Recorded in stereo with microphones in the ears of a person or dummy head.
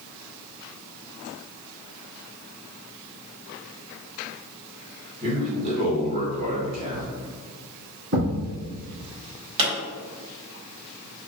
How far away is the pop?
About 1.7 m.